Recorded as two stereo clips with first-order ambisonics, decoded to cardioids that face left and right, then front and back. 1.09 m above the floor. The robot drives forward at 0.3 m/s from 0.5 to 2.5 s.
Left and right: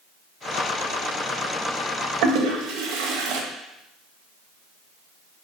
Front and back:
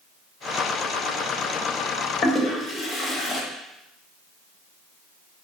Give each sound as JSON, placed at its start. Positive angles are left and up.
{"t": 2.2, "sound": "a toilet flushing", "azimuth_deg": -75, "distance_m": 0.6}